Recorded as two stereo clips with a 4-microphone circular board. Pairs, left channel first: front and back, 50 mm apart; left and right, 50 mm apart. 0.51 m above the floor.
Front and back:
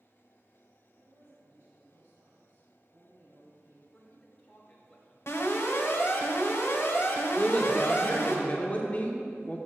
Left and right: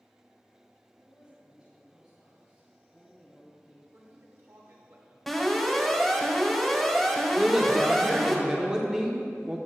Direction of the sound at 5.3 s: Straight ahead.